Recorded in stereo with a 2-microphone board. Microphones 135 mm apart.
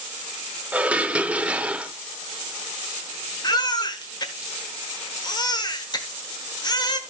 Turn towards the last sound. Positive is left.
turn(degrees=30)  # may be behind; listen again after turning